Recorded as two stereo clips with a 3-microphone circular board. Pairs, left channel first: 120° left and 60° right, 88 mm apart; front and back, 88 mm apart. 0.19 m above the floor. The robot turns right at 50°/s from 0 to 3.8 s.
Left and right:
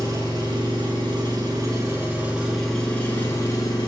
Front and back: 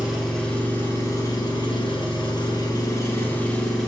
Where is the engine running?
105° right, 1.6 m; by 3.9 s 85° left, 1.6 m.